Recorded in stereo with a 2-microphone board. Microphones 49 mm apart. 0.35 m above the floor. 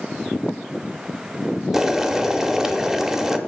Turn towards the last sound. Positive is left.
turn(degrees=-10)  # may be behind; listen again after turning